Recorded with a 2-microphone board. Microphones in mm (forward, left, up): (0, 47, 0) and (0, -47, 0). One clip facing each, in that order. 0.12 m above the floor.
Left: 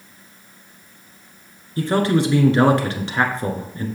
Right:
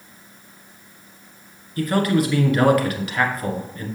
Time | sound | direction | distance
1.8 | a man speaking | 30° left (ahead or behind) | 1.2 m